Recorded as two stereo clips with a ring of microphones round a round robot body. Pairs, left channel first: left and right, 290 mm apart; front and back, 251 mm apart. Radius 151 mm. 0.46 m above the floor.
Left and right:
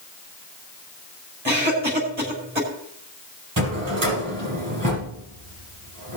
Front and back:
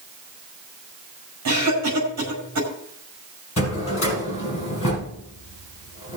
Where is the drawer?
50° right, 5.5 m.